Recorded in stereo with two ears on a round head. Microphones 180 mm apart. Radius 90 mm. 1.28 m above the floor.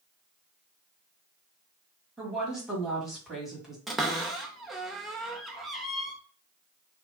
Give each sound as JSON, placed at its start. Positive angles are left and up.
{"t": 2.2, "sound": "a woman speaking", "side_deg": 0, "distance_m": 1.8}
{"t": 3.9, "sound": "a cupboard door", "side_deg": 0, "distance_m": 0.6}